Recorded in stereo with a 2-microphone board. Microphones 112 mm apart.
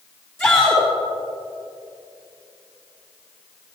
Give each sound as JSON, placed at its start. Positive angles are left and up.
{"t": 0.4, "sound": "a shout", "side_deg": 20, "distance_m": 3.0}